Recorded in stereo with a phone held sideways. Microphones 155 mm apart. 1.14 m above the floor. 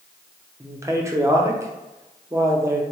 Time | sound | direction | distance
0.6 | a man speaking | 20° right (ahead or behind) | 0.6 m